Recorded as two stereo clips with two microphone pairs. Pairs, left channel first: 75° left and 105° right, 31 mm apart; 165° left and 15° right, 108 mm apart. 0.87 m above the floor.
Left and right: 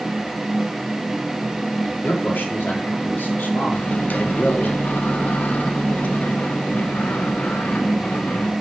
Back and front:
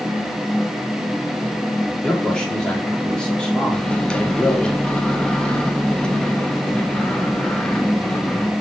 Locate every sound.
2.0 s a man speaking: 85° left, 1.5 m
3.7 s a microwave: 85° left, 0.8 m